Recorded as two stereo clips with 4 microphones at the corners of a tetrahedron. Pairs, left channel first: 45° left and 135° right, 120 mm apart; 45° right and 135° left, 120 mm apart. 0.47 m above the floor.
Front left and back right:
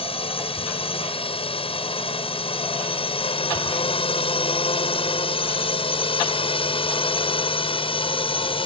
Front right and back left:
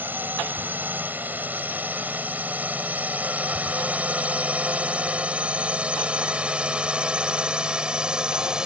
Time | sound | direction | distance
0.0 | a drone | 65° left | ?